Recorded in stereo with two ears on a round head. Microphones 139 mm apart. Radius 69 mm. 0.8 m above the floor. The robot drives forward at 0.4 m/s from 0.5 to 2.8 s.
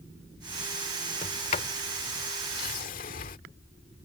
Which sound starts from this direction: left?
A sliding door, at 1.2 s.